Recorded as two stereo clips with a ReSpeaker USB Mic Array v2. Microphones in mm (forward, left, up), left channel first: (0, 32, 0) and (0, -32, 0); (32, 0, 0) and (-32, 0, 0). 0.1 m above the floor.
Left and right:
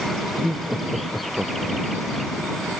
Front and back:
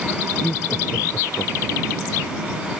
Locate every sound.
0.4 s laughter: 35° right; by 2.0 s 10° right